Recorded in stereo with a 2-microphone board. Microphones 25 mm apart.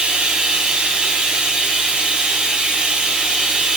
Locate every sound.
0.0 s running water: 45° right (ahead or behind), 1.7 m